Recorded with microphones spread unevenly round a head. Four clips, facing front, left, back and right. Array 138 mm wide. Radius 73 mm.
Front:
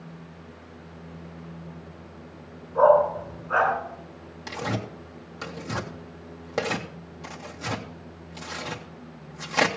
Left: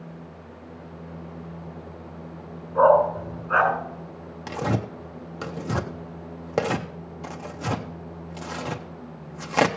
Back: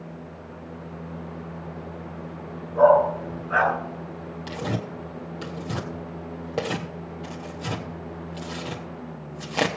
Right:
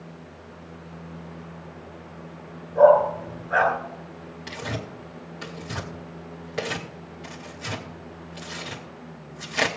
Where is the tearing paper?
100° left, 0.8 m.